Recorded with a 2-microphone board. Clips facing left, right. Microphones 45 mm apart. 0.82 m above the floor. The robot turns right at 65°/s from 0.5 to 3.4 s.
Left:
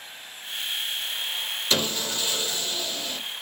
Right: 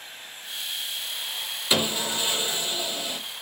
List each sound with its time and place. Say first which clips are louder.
1.7 s sawing: right 2 dB; 10° right (ahead or behind), 0.5 m; by 3.2 s 15° right (ahead or behind), 0.5 m